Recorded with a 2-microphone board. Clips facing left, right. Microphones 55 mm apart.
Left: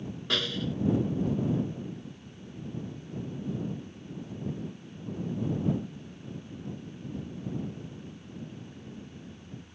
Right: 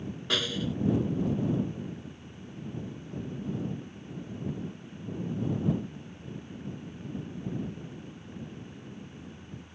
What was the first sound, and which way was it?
A snare drum, 5° right (ahead or behind).